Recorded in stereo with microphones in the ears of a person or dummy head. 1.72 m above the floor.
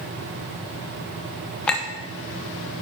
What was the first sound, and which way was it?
A clink, 10° left (ahead or behind).